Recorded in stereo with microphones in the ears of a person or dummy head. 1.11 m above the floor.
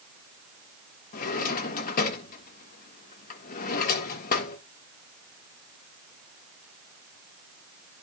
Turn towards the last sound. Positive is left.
turn(degrees=40)  # may be behind; listen again after turning